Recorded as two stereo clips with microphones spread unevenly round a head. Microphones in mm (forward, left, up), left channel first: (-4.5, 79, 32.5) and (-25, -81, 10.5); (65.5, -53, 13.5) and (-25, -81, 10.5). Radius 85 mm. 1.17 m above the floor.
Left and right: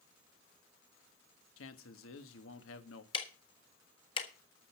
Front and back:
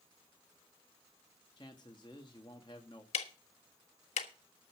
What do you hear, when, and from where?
1.6 s a man speaking: 85° left, 1.7 m
3.1 s ticking: 20° left, 1.5 m